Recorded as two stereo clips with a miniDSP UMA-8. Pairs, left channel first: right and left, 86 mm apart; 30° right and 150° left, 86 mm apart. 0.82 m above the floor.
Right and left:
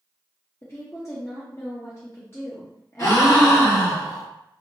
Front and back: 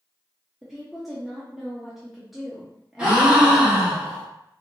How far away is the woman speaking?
About 0.6 m.